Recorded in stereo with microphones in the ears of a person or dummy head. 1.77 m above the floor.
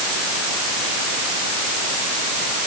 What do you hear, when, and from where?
Only background noise.